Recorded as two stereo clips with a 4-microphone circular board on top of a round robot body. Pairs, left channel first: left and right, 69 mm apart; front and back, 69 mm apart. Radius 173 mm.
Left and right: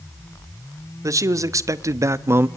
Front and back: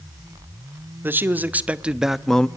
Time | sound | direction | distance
1.0 | a man speaking | 120° right | 1.8 m